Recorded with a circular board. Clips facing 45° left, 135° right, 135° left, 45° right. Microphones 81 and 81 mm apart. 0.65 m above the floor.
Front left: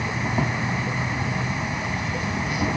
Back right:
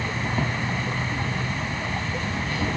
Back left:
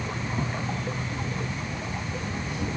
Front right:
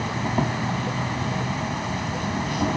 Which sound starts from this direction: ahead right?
An insect, at 0.0 s.